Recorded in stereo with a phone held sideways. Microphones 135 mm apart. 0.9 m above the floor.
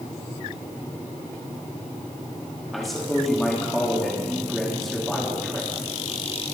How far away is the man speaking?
About 1.8 m.